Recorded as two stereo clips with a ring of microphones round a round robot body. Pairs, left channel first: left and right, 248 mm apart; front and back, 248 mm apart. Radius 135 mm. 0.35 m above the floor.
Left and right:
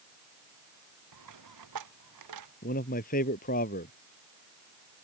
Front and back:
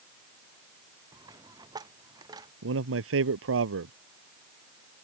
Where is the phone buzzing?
I don't hear a phone buzzing.